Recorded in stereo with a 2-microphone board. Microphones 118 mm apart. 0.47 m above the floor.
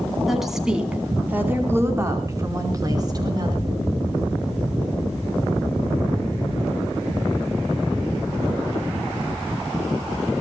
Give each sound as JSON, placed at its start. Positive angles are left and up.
{"t": 0.3, "sound": "a woman speaking", "side_deg": 0, "distance_m": 4.5}